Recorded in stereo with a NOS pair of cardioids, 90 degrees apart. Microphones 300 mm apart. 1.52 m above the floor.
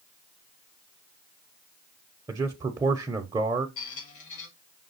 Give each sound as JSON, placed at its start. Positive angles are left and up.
{"t": 2.3, "sound": "a man speaking", "azimuth_deg": -15, "distance_m": 0.7}
{"t": 3.8, "sound": "a squeak", "azimuth_deg": 60, "distance_m": 1.6}